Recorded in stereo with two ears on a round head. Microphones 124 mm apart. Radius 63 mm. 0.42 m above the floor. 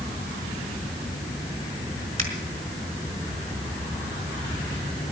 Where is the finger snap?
55° right (ahead or behind), 4.5 m.